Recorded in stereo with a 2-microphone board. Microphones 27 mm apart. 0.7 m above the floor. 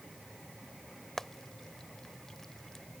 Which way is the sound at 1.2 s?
15° left (ahead or behind).